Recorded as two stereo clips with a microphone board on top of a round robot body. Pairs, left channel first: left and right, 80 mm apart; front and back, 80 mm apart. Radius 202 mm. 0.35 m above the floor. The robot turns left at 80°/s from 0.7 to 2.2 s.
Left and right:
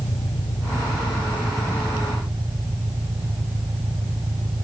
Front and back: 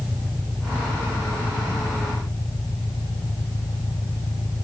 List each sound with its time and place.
0.0 s an engine running: 80° left; by 4.6 s 40° right